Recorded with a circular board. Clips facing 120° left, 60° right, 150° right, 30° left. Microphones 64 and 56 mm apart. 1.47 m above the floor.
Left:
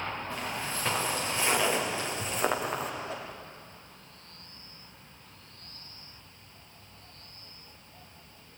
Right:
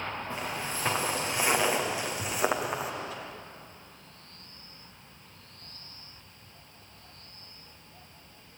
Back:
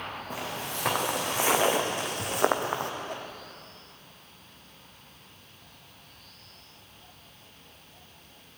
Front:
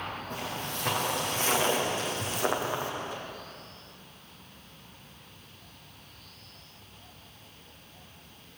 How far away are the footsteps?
About 6 m.